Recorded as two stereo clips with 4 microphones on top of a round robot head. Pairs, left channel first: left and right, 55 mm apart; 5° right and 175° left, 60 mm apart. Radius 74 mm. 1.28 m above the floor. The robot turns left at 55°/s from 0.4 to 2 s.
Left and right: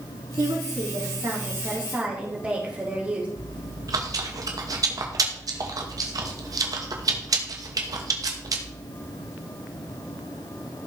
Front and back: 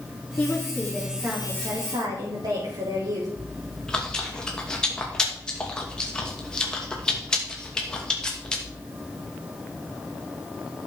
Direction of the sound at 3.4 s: 85° right.